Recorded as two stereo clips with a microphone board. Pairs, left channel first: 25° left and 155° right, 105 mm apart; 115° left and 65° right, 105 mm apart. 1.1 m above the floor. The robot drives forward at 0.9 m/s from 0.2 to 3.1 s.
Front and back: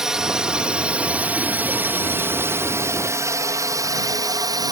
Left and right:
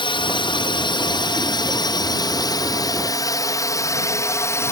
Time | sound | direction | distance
0.0 | a drone | 120° left | ?